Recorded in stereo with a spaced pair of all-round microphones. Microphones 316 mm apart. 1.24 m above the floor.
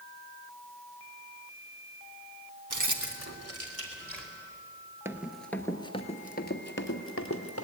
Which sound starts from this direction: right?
Keys jangling, at 2.7 s.